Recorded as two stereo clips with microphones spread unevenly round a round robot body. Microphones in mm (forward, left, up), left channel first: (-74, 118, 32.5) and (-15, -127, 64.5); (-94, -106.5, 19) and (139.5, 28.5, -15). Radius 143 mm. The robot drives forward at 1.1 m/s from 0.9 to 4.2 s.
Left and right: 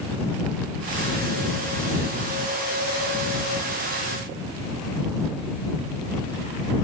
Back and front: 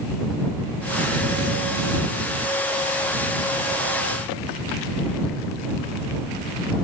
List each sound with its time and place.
Only background noise.